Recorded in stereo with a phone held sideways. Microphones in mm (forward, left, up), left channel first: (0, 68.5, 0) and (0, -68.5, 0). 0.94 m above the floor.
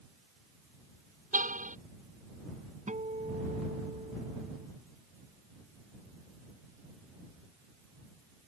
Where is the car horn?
65° right (ahead or behind).